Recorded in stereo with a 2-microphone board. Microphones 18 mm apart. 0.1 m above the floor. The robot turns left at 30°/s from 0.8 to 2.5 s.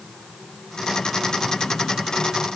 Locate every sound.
Only background noise.